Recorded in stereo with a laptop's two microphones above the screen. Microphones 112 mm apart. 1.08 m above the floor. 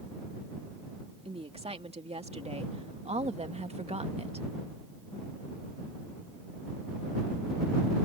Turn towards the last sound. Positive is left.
turn(degrees=-65)  # may be behind; listen again after turning